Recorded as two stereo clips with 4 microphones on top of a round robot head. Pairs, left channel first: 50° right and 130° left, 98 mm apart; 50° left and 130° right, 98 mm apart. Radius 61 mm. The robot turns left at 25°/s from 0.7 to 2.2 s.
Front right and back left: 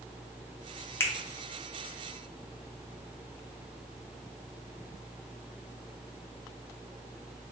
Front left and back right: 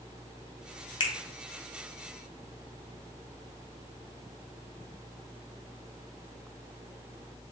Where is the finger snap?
15° left, 0.9 m.